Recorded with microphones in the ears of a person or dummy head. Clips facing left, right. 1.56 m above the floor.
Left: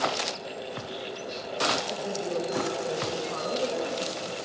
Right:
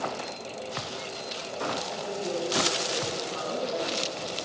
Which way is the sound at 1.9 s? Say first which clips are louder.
Left 1 dB; 55° left (ahead or behind).